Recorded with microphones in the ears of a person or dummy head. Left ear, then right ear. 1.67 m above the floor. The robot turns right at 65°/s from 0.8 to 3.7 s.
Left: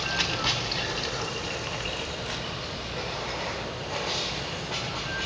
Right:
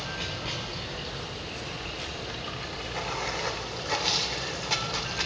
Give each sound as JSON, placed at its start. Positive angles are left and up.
{"t": 0.0, "sound": "running water", "azimuth_deg": 85, "distance_m": 1.3}